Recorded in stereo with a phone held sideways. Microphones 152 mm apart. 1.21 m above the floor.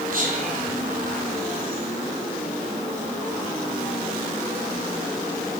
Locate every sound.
0.1 s whispering: 70° right (ahead or behind), 5.5 m